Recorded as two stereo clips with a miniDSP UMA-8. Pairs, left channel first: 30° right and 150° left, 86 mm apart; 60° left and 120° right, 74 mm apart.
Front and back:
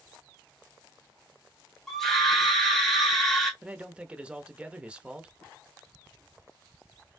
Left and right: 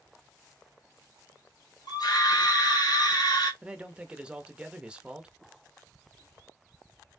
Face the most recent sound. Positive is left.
turn(degrees=-165)